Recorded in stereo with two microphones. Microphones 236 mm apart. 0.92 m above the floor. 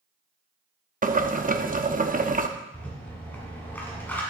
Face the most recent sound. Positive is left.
turn(degrees=10)  # may be behind; listen again after turning